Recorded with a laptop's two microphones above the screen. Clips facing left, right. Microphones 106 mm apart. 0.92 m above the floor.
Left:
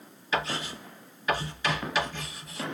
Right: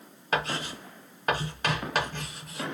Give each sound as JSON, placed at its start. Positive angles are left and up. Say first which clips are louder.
{"t": 0.3, "sound": "writing", "louder": "right 1 dB", "side_deg": -55, "distance_m": 3.0}